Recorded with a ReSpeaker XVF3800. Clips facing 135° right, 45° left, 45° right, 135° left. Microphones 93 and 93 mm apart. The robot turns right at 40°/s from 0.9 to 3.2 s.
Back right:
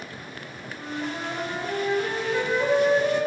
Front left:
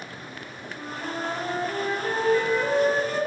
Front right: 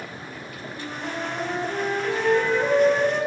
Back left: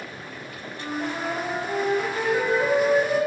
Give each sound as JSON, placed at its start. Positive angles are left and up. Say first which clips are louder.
{"t": 0.7, "sound": "a flute", "louder": "back right 1 dB, back left 3 dB", "azimuth_deg": 125, "distance_m": 2.5}